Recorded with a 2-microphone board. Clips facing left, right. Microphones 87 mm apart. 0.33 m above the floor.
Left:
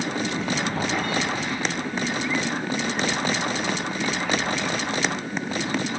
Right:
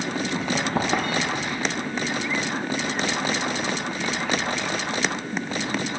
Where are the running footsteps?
60° right (ahead or behind), 2.5 m; by 1.6 s 65° right (ahead or behind), 0.8 m.